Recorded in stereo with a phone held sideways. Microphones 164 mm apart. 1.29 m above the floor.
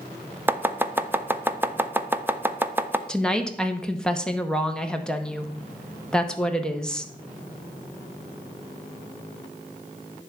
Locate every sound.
0.5 s chopping: 10° right (ahead or behind), 0.6 m
3.1 s a woman speaking: 5° left (ahead or behind), 0.9 m